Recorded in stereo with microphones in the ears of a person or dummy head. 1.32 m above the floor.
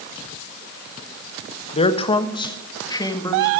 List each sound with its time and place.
1.7 s a man speaking: 35° left (ahead or behind), 0.9 m; by 3.5 s 20° left (ahead or behind), 1.8 m